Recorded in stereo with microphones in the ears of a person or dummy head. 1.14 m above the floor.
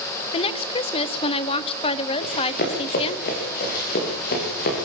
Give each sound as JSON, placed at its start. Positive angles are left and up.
{"t": 0.3, "sound": "a woman speaking", "side_deg": 30, "distance_m": 1.1}
{"t": 2.2, "sound": "running footsteps", "side_deg": 50, "distance_m": 7.5}